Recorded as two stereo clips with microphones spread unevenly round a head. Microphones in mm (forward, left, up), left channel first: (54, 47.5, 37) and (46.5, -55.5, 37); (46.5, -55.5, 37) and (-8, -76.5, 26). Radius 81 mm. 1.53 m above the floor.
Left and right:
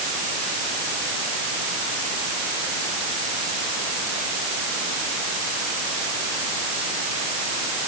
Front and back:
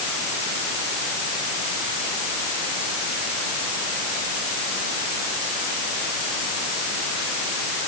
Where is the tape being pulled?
I don't hear tape being pulled.